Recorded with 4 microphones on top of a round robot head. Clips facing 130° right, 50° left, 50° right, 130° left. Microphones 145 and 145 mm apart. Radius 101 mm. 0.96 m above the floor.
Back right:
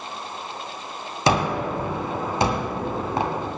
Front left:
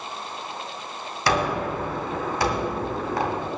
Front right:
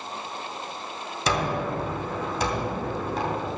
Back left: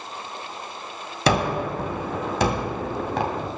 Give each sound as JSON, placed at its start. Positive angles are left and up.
{"t": 1.3, "sound": "a gunshot", "azimuth_deg": 160, "distance_m": 2.0}